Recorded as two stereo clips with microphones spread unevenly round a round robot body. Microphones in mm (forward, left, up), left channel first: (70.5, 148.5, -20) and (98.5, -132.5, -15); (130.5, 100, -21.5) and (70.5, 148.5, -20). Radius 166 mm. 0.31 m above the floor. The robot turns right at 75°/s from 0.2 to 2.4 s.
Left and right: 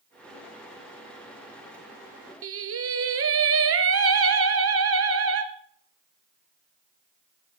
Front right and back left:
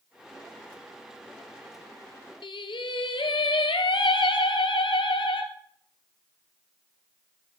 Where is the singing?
45° right, 1.4 m.